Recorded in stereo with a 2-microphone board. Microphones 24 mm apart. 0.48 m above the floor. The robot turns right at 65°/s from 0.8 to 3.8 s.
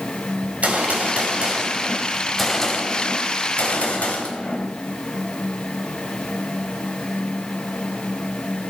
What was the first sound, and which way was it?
A gunshot, 100° right.